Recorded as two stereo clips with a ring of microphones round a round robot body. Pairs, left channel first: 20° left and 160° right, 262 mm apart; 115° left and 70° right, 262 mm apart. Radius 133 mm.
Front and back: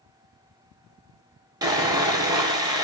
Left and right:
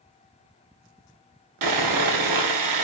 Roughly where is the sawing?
Right.